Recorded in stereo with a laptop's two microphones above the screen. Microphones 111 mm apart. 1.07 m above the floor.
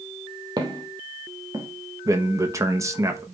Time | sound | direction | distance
0.6 | footsteps | 35° right (ahead or behind) | 1.9 m
2.0 | a man speaking | 25° right (ahead or behind) | 0.9 m